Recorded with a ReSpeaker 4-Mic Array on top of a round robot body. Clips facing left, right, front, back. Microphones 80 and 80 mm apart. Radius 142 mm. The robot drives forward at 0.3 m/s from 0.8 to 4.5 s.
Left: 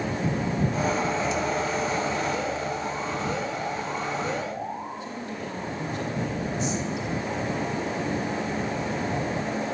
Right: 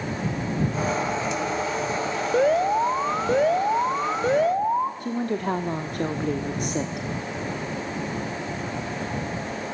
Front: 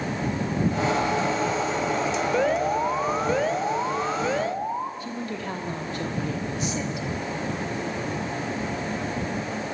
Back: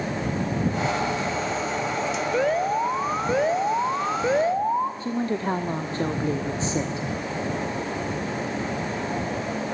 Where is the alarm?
90° right, 1.7 m; by 4.9 s 115° right, 1.8 m.